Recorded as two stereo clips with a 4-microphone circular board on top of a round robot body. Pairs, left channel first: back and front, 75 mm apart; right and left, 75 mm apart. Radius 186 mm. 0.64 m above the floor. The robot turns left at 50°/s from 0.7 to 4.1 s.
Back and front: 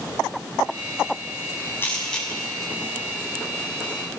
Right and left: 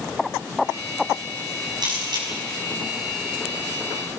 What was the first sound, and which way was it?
A camera shutter, 115° left.